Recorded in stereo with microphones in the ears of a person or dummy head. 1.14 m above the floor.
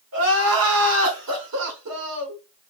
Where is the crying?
80° right, 2 m.